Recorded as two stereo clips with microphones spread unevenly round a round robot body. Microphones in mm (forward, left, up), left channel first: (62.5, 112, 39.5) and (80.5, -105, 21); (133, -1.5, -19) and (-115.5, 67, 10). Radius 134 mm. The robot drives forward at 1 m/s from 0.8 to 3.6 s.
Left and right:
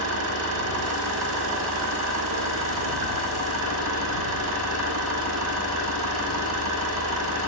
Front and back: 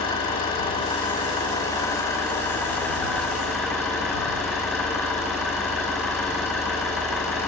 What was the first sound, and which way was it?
An engine running, 85° right.